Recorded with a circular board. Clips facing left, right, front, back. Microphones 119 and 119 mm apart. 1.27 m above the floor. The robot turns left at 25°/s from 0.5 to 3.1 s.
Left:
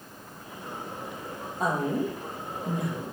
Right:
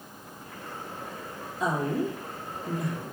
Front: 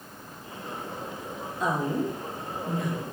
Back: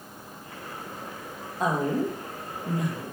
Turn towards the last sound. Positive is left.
turn(degrees=95)